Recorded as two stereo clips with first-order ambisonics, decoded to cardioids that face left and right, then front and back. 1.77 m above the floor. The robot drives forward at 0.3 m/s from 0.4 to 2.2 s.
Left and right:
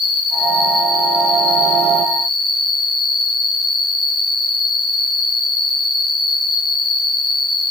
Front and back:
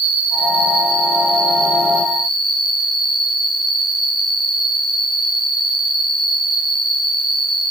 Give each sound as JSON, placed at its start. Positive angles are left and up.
{"t": 0.0, "sound": "an insect", "azimuth_deg": 170, "distance_m": 3.0}